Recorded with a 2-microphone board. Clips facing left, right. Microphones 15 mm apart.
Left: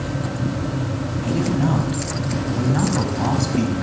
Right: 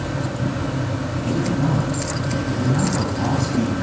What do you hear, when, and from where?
1.2 s a man speaking: 20° left (ahead or behind), 2 m